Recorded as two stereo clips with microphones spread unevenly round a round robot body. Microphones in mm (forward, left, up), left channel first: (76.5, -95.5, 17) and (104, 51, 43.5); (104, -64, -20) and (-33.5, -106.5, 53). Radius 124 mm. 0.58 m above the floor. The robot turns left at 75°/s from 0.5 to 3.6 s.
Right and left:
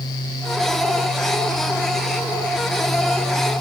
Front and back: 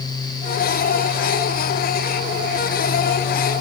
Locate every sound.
Only background noise.